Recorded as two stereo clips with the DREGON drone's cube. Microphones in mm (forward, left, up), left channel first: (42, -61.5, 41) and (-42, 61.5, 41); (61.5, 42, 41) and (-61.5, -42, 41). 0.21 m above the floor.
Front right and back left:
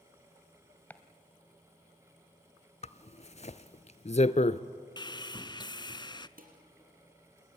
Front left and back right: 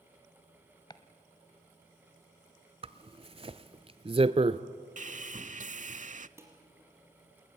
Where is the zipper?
95° right, 0.6 m.